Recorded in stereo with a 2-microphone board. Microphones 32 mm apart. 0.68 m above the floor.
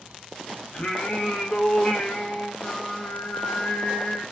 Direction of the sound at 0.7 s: 45° left (ahead or behind).